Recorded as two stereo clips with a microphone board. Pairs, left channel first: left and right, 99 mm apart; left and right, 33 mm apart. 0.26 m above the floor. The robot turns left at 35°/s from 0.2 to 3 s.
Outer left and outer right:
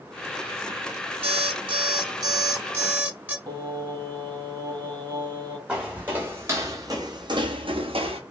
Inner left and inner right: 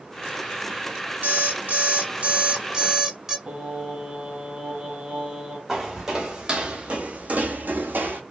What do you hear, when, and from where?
1.2 s an alarm clock: 100° right, 1.5 m; by 3.4 s 165° right, 1.5 m
3.5 s singing: 45° right (ahead or behind), 2 m
5.7 s footsteps: 10° right (ahead or behind), 1.2 m; by 8.2 s 75° right (ahead or behind), 1.0 m